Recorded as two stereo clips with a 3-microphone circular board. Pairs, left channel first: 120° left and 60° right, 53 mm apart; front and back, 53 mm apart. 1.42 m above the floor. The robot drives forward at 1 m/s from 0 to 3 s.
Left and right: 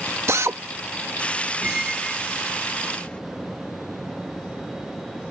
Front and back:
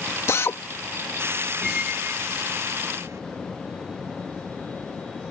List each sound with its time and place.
0.3 s a drill: 30° right; by 0.6 s 35° right
1.6 s a squeak: 95° right; by 3.2 s 170° right